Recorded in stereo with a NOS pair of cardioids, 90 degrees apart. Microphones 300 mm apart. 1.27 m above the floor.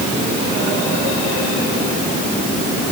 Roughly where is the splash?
I don't hear a splash.